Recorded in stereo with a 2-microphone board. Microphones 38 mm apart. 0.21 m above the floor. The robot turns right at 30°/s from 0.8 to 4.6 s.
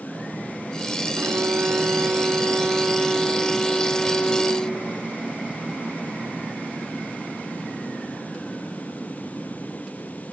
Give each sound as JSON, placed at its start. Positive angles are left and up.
{"t": 1.2, "sound": "a violin", "azimuth_deg": -70}